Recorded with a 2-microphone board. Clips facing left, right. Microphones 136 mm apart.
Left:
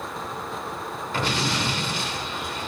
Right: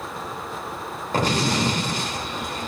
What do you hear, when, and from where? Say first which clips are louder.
1.1 s an explosion: right 5 dB; 40° right (ahead or behind), 2.5 m